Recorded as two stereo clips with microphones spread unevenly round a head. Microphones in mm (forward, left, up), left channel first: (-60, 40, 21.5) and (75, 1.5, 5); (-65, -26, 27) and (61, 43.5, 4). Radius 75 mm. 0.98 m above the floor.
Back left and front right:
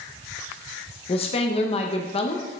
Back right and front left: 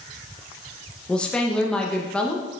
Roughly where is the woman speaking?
Behind left.